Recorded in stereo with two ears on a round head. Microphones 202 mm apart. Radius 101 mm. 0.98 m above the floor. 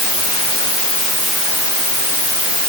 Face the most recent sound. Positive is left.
No sound to turn to.